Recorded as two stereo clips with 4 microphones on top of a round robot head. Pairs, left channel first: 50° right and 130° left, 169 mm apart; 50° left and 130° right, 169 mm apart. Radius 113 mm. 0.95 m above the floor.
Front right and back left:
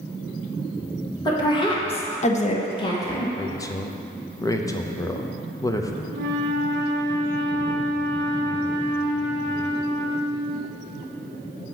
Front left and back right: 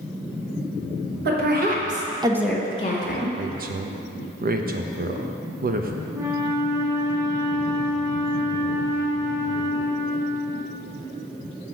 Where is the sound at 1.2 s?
115° right, 2 m; by 3.3 s 25° left, 1.5 m.